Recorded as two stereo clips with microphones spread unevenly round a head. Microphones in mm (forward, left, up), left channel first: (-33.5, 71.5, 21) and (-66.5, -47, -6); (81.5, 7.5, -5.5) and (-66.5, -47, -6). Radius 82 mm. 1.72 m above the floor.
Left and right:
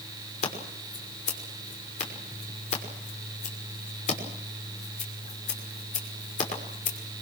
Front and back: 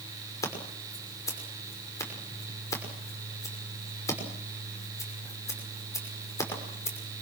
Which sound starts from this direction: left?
Scissors, at 0.4 s.